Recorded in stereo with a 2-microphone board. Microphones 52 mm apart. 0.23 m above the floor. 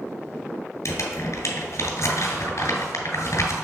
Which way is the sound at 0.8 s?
70° left (ahead or behind).